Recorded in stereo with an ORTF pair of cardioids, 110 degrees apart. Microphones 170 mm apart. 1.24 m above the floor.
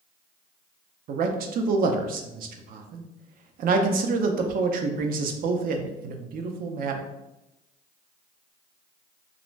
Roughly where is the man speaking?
Ahead right.